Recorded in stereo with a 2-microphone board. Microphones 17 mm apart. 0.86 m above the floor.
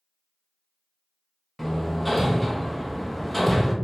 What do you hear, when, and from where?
1.6 s hammering: 15° left (ahead or behind), 0.6 m